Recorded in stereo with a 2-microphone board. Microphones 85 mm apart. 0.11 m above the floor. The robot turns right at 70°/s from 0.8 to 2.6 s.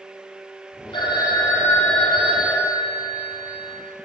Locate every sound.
0.9 s a phone ringing: 95° left, 1.9 m; by 3.8 s 150° right, 1.9 m